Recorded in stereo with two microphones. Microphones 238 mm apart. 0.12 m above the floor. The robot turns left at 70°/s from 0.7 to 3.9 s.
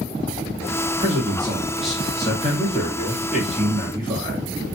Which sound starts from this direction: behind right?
A man speaking, at 1.0 s.